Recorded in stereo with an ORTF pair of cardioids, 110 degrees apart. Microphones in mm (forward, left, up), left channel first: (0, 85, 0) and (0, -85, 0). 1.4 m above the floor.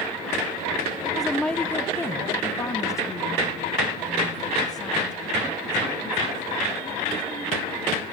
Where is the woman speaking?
5° right, 0.7 m; by 8.0 s 25° left, 5 m.